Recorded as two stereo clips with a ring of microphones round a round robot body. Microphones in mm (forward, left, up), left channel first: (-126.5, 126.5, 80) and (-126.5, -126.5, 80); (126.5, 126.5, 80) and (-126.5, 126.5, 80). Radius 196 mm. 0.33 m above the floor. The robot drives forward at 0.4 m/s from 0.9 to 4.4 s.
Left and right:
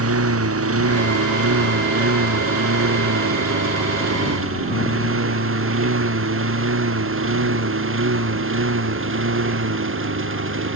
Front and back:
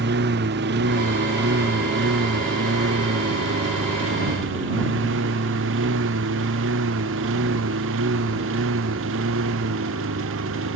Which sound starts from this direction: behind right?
A lawn mower, at 0.0 s.